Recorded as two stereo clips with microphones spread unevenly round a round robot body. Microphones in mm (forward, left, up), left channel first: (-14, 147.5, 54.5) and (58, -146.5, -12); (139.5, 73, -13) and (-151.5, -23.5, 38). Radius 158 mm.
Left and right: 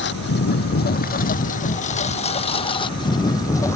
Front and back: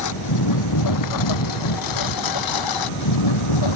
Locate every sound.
0.0 s a lawn mower: 50° left; by 3.8 s 25° left